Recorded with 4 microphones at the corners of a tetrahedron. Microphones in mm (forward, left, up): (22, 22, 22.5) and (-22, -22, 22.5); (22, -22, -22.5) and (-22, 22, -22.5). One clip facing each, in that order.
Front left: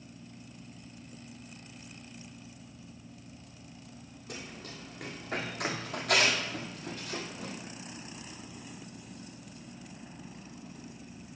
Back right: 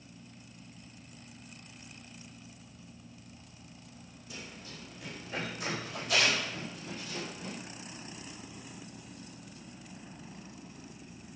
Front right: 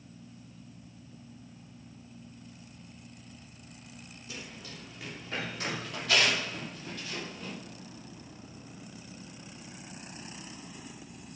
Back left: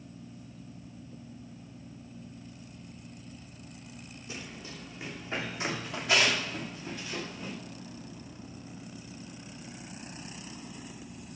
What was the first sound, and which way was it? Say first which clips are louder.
Running footsteps: front left 3 dB, back left 2 dB; 70° left.